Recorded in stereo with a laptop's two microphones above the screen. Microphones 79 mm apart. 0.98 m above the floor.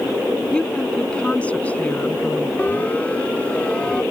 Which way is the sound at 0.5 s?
10° left (ahead or behind).